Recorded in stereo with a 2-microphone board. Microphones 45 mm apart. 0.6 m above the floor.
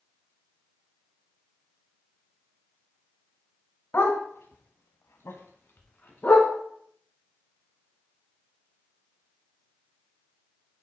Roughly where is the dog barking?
Left.